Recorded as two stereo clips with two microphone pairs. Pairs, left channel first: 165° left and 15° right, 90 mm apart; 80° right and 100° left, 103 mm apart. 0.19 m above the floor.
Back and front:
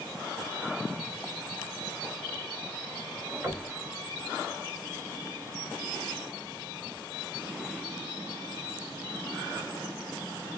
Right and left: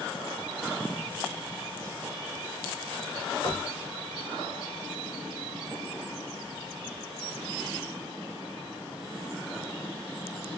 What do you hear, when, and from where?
3.4 s knocking: 75° right, 1.8 m